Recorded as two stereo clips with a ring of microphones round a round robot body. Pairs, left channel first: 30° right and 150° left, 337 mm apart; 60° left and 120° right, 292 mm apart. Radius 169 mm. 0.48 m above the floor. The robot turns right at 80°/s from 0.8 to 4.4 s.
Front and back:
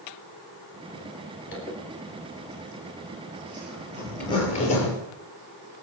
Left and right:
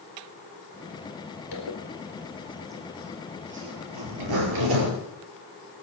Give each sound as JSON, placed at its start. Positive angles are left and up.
{"t": 1.5, "sound": "a zipper", "azimuth_deg": 25, "distance_m": 4.5}